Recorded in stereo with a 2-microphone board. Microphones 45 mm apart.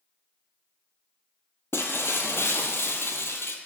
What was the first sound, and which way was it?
Breaking glass, 80° left.